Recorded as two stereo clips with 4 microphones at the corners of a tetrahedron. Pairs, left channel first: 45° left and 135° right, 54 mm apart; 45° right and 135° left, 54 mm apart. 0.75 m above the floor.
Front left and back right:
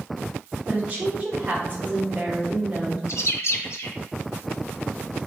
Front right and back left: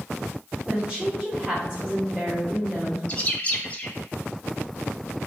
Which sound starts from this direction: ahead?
A bird, at 3.1 s.